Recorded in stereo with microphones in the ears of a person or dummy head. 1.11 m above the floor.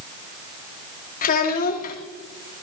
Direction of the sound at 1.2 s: 45° left (ahead or behind).